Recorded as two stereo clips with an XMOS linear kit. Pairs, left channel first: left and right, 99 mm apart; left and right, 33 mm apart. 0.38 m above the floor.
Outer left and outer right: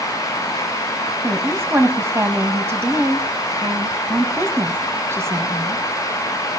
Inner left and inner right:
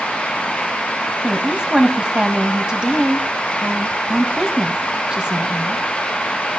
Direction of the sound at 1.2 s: 25° right (ahead or behind).